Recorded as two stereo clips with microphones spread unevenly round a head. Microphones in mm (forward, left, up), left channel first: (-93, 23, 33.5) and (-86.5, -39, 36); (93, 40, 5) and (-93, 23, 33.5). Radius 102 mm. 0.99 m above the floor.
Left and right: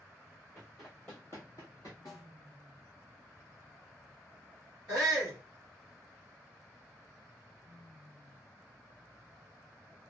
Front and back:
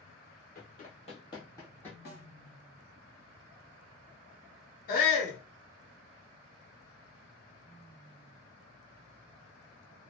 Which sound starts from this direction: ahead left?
A snare drum, at 2.0 s.